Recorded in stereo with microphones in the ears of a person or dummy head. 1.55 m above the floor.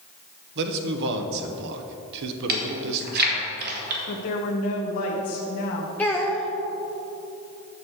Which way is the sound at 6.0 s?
5° left (ahead or behind).